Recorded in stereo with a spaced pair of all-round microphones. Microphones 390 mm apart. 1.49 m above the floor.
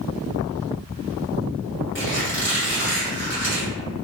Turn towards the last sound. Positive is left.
turn(degrees=35)  # may be behind; listen again after turning